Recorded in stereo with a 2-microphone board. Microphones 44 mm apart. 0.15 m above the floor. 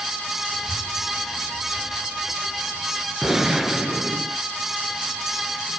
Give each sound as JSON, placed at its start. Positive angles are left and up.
{"t": 0.5, "sound": "a child speaking", "side_deg": -35, "distance_m": 9.0}
{"t": 3.2, "sound": "a gunshot", "side_deg": -10, "distance_m": 1.2}